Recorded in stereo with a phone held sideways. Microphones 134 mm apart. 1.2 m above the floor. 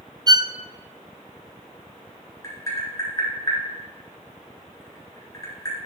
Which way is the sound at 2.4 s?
25° left (ahead or behind).